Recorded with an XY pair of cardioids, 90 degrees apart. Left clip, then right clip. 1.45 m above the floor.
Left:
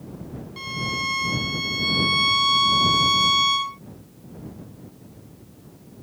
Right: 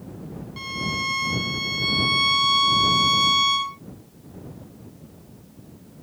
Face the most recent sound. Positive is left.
turn(degrees=0)